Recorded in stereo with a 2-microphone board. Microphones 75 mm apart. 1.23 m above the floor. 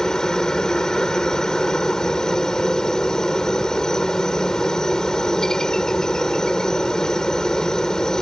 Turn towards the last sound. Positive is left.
turn(degrees=10)  # may be behind; listen again after turning